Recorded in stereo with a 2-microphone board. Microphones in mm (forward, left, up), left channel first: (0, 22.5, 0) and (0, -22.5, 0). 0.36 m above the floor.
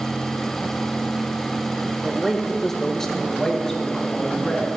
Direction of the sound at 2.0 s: 5° right (ahead or behind).